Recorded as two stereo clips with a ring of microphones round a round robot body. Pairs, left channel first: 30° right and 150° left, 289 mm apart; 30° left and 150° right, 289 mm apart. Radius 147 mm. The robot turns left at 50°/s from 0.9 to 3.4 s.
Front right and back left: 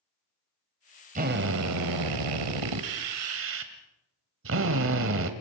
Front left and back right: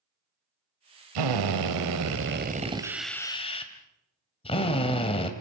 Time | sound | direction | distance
1.1 | a drill | 145° right | 1.7 m